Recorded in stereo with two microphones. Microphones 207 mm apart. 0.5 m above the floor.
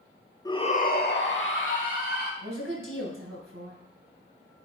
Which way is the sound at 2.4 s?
75° right (ahead or behind).